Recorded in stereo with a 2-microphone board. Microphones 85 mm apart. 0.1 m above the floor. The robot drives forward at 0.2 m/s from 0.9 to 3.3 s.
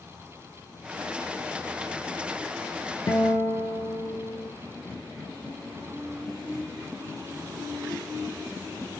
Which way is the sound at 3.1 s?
35° left (ahead or behind).